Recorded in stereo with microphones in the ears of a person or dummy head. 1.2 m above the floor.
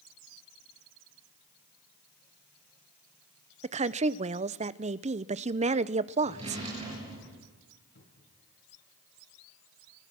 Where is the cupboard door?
65° left (ahead or behind), 7.5 m.